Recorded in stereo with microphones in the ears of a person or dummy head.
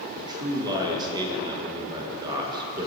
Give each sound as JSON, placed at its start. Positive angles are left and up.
{"t": 0.1, "sound": "a man speaking", "side_deg": -25, "distance_m": 2.0}